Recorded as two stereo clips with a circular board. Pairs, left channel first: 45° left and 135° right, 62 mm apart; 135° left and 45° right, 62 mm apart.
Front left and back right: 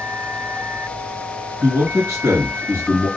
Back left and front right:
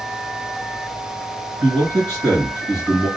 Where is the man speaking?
115° right, 2 m.